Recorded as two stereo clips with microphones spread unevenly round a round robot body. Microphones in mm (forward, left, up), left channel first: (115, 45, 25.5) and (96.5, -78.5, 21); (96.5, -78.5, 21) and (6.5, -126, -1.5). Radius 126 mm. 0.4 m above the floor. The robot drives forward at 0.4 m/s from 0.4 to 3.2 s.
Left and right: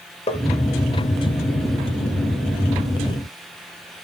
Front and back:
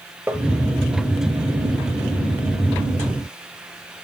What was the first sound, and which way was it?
Tapping, 130° left.